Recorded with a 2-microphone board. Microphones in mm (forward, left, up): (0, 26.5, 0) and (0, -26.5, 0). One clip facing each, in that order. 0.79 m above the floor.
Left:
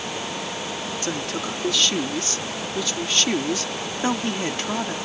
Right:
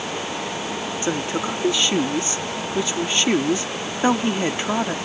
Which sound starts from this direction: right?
A woman speaking, at 1.0 s.